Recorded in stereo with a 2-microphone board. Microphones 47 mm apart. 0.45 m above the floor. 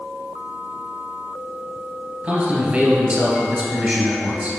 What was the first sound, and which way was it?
A man speaking, 25° right (ahead or behind).